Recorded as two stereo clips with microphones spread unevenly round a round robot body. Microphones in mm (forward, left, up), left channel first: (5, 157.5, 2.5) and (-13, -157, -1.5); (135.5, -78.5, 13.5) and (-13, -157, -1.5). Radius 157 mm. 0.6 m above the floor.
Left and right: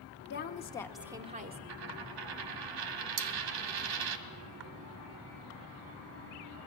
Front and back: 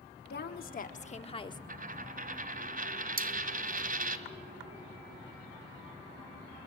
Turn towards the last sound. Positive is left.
turn(degrees=-120)